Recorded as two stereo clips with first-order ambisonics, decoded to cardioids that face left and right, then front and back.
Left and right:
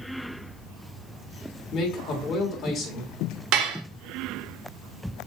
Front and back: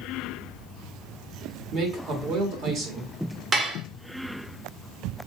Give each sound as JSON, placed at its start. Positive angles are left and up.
{"t": 1.7, "sound": "a man speaking", "azimuth_deg": 140, "distance_m": 1.5}
{"t": 3.5, "sound": "dishes clattering", "azimuth_deg": -110, "distance_m": 0.8}